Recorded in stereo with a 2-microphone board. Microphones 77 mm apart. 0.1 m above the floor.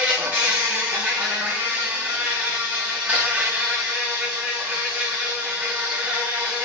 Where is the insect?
15° right (ahead or behind), 2.0 m.